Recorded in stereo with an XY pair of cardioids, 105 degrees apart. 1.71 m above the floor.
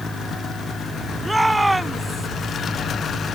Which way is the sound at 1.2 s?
10° right.